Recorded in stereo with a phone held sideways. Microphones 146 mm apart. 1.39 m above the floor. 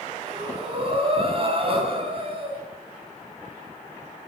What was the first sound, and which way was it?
Breathing, 40° right (ahead or behind).